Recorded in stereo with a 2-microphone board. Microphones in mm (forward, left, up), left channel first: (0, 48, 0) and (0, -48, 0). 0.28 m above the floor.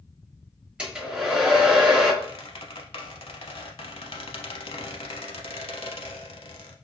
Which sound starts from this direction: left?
A squeak, at 2.2 s.